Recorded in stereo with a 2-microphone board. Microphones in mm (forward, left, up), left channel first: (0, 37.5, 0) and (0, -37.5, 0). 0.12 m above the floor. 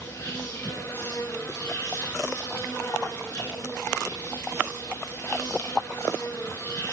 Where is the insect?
35° left (ahead or behind), 6.5 m.